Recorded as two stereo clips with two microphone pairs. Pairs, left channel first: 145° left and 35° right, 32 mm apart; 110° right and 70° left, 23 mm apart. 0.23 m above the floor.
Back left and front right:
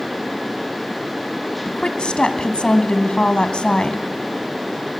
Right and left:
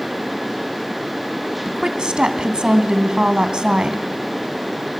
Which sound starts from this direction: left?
A woman speaking, at 1.6 s.